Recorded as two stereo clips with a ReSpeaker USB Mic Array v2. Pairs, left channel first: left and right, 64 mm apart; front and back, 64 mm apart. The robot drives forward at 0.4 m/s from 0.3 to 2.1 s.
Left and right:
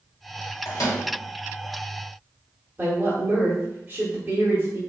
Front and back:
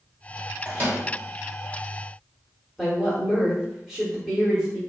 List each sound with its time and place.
0.7 s a microwave: 115° left, 1.3 m; by 1.0 s 125° left, 1.4 m
2.8 s a woman speaking: 100° right, 0.8 m